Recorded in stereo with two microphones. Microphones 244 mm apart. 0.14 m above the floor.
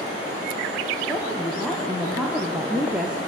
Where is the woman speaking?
5° left (ahead or behind), 4 m; by 3.2 s 5° right (ahead or behind), 3 m.